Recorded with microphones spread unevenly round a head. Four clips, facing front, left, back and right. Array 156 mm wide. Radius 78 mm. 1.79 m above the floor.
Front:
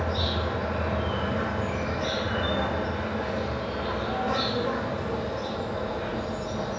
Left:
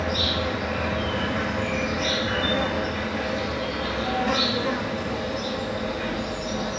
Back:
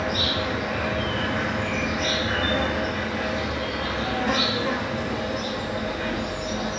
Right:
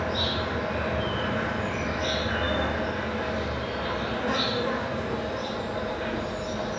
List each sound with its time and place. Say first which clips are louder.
0.0 s an insect: left 2 dB, back 2 dB; 135° left, 3.5 m